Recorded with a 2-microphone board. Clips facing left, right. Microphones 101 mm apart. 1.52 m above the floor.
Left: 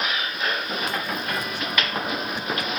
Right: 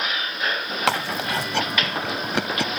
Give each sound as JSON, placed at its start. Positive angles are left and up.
{"t": 0.9, "sound": "chewing", "side_deg": -75}